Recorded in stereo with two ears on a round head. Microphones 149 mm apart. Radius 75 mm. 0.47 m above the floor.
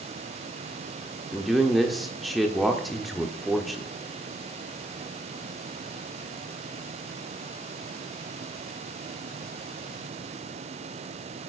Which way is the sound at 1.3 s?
Centre (ahead or behind).